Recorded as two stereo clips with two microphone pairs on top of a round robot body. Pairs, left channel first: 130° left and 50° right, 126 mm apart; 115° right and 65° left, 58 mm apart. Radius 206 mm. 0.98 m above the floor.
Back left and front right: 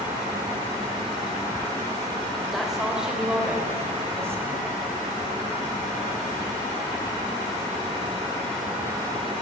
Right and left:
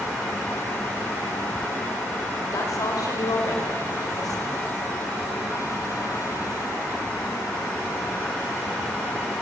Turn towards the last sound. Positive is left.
turn(degrees=-115)